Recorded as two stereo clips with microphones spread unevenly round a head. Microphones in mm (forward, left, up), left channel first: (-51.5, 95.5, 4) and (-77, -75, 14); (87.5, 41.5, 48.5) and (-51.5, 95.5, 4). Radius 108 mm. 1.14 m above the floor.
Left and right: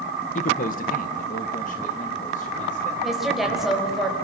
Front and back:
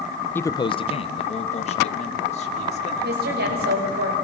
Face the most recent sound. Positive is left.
turn(degrees=175)